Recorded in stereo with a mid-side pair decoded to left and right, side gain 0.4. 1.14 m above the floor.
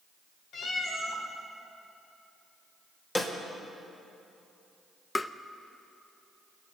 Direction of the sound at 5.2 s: 20° left.